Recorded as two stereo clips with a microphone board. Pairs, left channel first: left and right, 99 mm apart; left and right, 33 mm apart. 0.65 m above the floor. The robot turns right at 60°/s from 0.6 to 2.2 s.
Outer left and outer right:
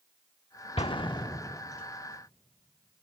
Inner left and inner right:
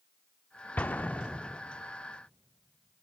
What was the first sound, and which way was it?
An explosion, 70° left (ahead or behind).